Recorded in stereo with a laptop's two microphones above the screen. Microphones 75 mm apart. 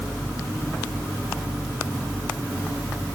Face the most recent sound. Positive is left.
No sound to turn to.